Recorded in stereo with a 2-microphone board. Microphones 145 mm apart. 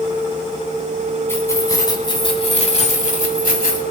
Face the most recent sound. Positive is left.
turn(degrees=80)